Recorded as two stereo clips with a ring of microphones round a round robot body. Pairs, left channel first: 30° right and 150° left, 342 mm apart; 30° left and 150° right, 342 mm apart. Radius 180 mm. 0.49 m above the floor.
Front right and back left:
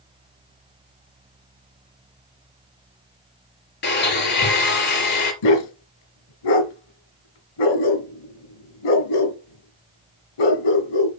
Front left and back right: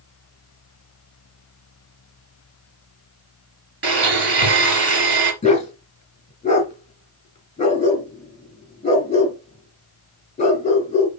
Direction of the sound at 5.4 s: 40° right.